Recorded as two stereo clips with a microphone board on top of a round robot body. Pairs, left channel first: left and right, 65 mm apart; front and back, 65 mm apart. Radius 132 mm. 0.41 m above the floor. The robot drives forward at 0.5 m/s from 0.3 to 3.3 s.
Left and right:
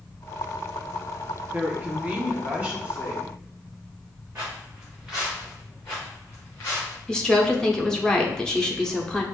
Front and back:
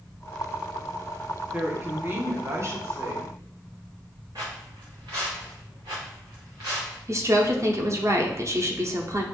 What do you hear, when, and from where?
1.5 s a woman speaking: 135° right, 1.3 m; by 3.3 s 160° right, 1.8 m
4.3 s footsteps: 155° right, 1.7 m; by 7.0 s 150° left, 3 m
7.1 s a woman speaking: 165° left, 1.0 m